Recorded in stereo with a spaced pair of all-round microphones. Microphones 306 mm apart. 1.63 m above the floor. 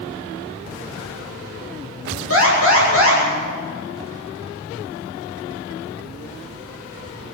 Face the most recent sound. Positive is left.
turn(degrees=45)  # may be behind; listen again after turning